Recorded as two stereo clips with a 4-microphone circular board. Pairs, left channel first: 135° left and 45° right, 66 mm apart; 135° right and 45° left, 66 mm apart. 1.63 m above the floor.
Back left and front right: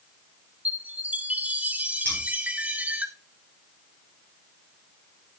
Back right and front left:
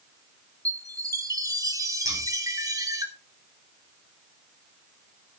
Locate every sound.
0.7 s a chime: 20° left, 1.4 m
2.0 s scissors: 65° left, 4.5 m